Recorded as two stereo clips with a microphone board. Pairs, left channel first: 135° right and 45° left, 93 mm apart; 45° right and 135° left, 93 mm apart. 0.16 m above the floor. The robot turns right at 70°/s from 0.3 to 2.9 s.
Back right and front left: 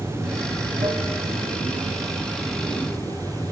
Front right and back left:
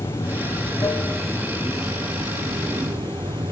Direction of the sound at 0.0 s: 20° right.